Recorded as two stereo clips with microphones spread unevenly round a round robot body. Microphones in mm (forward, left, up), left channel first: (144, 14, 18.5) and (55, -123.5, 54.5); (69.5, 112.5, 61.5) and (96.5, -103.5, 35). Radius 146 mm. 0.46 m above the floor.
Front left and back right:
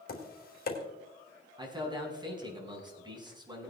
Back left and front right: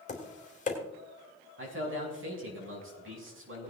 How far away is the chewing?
No chewing in this recording.